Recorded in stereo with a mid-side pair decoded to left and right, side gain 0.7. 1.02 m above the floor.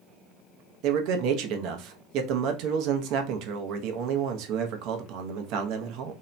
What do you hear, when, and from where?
0.8 s a man speaking: 60° right, 0.7 m